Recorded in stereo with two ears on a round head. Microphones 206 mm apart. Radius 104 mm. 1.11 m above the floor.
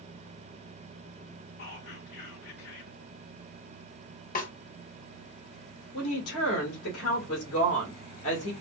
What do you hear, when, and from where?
1.6 s whispering: 50° left (ahead or behind), 2.5 m
4.3 s a snare drum: 35° left (ahead or behind), 0.6 m
5.9 s a woman speaking: 65° left (ahead or behind), 1.9 m